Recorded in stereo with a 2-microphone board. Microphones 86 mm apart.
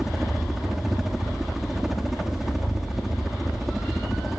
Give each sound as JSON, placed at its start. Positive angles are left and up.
{"t": 0.0, "sound": "a helicopter", "side_deg": -5}